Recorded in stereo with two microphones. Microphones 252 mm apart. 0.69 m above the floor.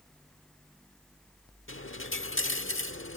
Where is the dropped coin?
55° left (ahead or behind).